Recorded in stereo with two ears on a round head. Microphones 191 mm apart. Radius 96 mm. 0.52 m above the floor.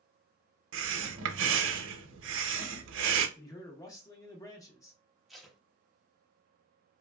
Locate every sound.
0.7 s breathing: 70° right (ahead or behind), 0.6 m
3.4 s a man speaking: 15° left (ahead or behind), 0.8 m
5.3 s tape being pulled: centre (ahead or behind), 0.6 m